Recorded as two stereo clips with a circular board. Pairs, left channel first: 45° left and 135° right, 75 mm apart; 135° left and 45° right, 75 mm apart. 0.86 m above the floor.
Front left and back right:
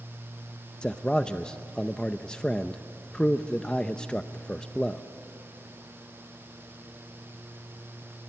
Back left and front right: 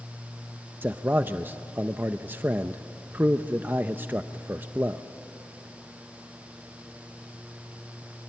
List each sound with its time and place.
0.8 s a man speaking: 20° right, 0.6 m